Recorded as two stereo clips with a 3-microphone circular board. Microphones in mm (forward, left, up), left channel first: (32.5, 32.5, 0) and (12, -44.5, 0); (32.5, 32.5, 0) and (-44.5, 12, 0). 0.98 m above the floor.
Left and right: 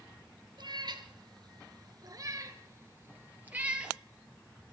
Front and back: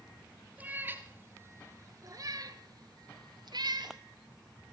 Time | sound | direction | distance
0.6 | a cat meowing | 100° right | 2 m